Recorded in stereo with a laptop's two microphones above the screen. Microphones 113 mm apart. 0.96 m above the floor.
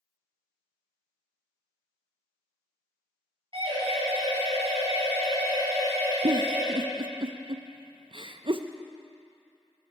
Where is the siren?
55° right (ahead or behind), 6 m; by 6.7 s 70° right (ahead or behind), 6 m.